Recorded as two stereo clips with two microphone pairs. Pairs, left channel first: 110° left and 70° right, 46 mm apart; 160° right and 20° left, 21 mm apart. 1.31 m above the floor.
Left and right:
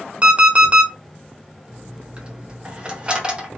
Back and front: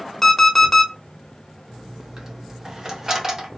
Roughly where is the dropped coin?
Ahead.